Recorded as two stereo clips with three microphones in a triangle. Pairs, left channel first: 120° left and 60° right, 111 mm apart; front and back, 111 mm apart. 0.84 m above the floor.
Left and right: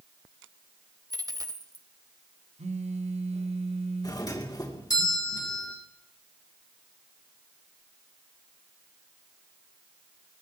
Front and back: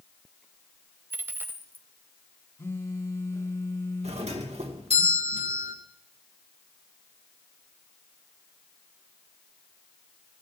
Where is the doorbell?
175° left, 2.5 m.